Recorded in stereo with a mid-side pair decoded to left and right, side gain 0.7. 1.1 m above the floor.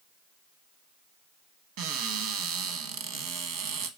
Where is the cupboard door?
70° right, 1.0 m.